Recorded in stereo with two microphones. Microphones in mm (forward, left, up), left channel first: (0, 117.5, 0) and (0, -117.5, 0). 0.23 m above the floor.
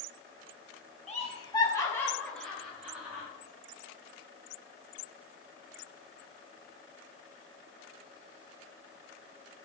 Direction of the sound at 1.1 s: 30° left (ahead or behind).